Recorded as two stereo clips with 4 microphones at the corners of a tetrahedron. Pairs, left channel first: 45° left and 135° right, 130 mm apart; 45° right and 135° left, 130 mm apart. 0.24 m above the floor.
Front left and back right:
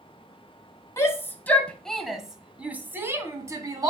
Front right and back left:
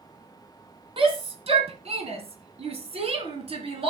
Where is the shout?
110° left, 1.7 m; by 3.9 s 170° left, 2 m.